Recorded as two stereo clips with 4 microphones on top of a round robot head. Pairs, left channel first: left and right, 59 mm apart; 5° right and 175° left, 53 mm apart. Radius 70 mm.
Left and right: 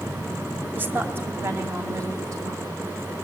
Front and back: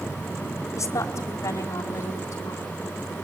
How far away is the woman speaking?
About 2 m.